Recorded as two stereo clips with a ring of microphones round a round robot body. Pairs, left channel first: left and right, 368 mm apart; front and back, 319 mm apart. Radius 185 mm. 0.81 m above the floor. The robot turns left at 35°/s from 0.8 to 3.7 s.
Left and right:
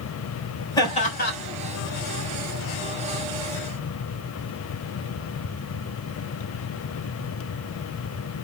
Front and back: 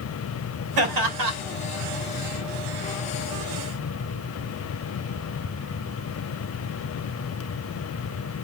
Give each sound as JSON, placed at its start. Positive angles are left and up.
{"t": 0.8, "sound": "laughter", "azimuth_deg": 170, "distance_m": 4.0}